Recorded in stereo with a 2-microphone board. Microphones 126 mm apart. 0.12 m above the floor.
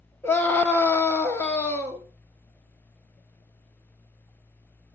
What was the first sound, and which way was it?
A scream, 15° left (ahead or behind).